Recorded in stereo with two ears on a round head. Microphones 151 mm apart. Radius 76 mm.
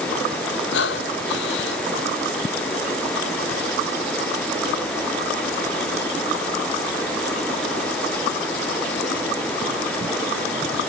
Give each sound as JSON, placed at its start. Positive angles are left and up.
{"t": 0.7, "sound": "breathing", "side_deg": 75}